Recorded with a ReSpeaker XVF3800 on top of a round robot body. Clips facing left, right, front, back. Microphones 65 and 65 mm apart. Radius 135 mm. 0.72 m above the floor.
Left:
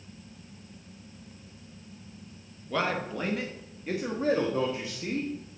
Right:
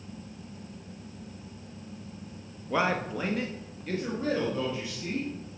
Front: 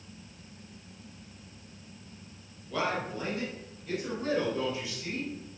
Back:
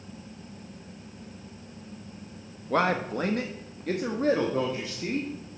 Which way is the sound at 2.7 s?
160° right.